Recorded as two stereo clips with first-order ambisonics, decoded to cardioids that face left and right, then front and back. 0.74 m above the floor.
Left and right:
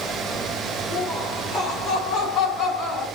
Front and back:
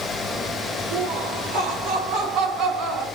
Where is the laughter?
160° left, 2 m; by 3.1 s 145° left, 3.5 m.